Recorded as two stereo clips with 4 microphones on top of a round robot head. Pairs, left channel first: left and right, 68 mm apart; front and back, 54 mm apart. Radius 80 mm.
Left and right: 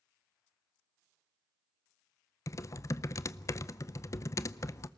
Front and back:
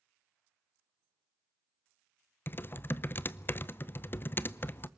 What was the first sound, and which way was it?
Typing on a keyboard, 50° left.